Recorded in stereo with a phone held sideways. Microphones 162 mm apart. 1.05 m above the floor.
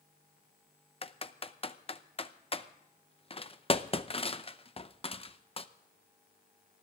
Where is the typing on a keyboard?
35° left (ahead or behind), 0.6 m.